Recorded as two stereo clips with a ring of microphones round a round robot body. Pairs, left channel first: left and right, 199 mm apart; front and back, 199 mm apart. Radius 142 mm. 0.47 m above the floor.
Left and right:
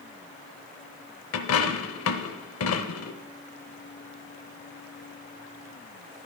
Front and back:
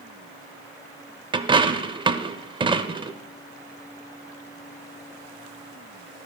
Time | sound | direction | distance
1.3 | a dropped coin | 110° left | 0.5 m